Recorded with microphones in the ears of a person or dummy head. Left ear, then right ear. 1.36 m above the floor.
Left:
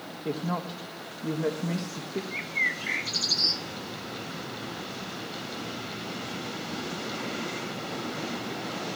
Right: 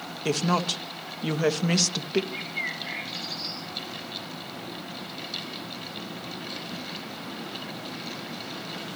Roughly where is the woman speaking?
Right.